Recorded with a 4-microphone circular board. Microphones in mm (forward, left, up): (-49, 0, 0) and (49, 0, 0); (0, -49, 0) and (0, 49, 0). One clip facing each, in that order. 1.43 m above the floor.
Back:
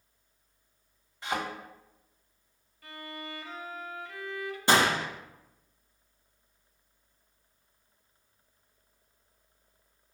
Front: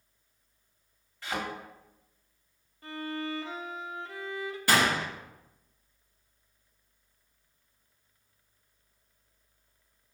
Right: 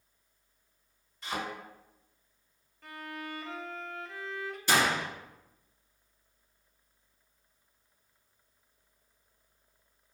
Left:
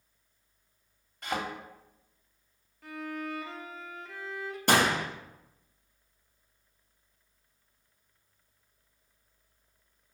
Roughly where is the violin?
Ahead.